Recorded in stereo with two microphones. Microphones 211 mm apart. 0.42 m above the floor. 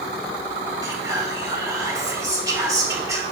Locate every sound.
0.8 s whispering: 15° right (ahead or behind), 1.5 m